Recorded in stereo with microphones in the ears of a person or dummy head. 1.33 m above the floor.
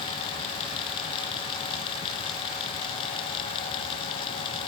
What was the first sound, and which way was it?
Only background noise.